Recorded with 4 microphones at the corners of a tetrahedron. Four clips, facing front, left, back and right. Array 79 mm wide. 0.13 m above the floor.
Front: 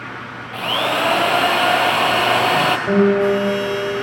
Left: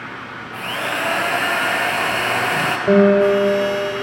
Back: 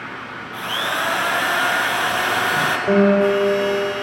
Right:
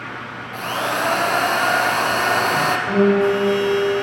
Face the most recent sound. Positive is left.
turn(degrees=95)